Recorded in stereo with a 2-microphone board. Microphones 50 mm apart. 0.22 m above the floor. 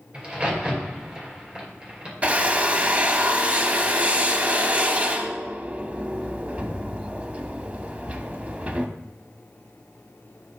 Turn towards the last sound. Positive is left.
turn(degrees=-30)  # may be behind; listen again after turning